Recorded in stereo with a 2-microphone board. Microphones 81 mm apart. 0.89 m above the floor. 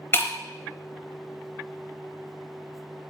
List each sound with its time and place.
0.1 s breaking glass: 30° left (ahead or behind), 0.7 m